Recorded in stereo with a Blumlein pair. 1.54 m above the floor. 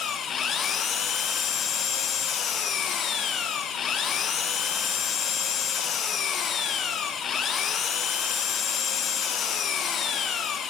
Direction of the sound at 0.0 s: 25° left.